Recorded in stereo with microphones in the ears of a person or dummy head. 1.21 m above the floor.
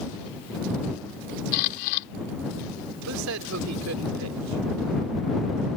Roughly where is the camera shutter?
Left.